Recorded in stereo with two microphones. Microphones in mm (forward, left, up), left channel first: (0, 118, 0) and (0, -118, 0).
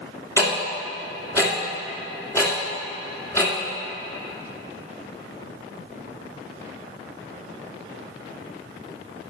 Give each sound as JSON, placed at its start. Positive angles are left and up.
{"t": 0.4, "sound": "ticking", "side_deg": 10, "distance_m": 1.7}